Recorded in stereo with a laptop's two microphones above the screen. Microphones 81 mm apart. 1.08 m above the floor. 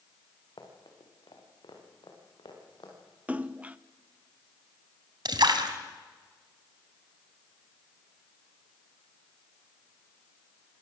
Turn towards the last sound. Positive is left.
turn(degrees=-65)  # may be behind; listen again after turning